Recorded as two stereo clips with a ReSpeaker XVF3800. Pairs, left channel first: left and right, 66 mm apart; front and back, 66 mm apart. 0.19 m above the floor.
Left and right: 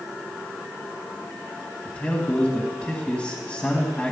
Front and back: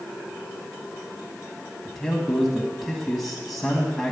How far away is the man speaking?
About 1.6 m.